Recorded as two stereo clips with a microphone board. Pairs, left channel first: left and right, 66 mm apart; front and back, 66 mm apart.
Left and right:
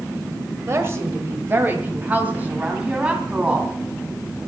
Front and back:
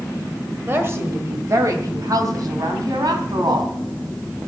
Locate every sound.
0.7 s a woman speaking: 130° right, 1.6 m; by 4.4 s 165° right, 3.5 m